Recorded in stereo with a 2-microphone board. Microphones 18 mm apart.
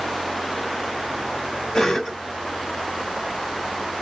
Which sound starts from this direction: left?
A cough, at 1.7 s.